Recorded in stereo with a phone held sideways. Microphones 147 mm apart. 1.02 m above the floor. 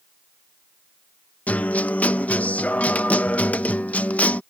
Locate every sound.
1.5 s a guitar: 10° left (ahead or behind)